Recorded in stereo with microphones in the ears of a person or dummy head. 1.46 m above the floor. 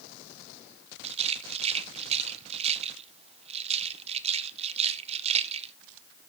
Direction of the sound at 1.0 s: 35° right (ahead or behind).